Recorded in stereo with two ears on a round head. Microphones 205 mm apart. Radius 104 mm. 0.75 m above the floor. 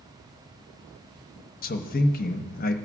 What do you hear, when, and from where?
1.6 s a man speaking: 40° left (ahead or behind), 0.8 m